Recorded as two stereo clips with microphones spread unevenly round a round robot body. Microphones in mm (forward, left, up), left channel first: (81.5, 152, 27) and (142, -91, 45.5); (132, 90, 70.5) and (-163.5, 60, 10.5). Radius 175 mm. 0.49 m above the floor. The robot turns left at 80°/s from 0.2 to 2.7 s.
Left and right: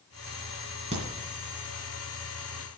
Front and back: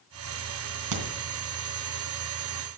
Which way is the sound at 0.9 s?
150° right.